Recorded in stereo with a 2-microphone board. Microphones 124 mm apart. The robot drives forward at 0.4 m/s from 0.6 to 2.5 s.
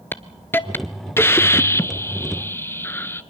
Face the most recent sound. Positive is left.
turn(degrees=20)  # may be behind; listen again after turning